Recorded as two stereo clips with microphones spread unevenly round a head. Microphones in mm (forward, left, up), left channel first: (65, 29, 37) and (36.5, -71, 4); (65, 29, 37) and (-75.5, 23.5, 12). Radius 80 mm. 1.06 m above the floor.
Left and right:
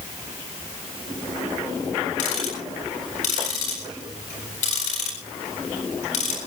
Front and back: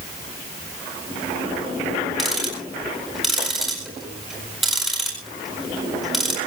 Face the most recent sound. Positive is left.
turn(degrees=95)